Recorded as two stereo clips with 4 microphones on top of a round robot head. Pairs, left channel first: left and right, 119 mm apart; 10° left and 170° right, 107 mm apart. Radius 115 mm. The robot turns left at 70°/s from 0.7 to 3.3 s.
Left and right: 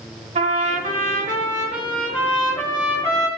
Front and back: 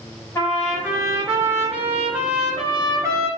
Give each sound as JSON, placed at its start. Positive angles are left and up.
{"t": 0.3, "sound": "a trumpet", "azimuth_deg": -60, "distance_m": 1.8}